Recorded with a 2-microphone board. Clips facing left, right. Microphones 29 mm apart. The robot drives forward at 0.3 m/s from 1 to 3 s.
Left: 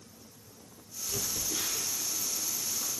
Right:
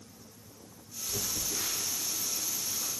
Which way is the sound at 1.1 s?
75° left (ahead or behind).